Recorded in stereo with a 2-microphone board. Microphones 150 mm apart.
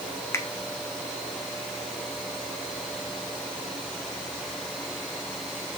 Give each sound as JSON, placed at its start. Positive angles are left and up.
{"t": 0.3, "sound": "a finger snap", "side_deg": 15, "distance_m": 0.9}